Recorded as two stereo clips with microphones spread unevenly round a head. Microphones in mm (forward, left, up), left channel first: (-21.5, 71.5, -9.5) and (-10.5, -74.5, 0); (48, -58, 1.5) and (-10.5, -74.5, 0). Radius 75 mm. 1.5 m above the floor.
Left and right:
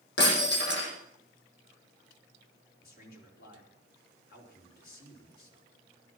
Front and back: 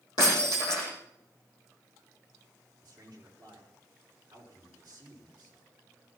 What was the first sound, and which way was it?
Breaking glass, 70° left.